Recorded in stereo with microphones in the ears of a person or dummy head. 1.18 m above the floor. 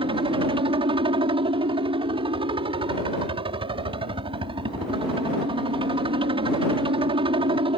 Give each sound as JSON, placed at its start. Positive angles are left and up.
{"t": 0.0, "sound": "a helicopter", "side_deg": -25}